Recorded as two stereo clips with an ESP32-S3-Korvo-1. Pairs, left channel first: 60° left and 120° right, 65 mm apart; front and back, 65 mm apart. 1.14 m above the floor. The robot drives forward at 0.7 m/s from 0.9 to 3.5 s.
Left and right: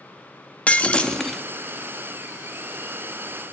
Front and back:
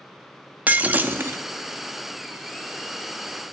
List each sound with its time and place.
0.7 s breaking glass: 125° left, 0.7 m; by 1.4 s 150° left, 0.9 m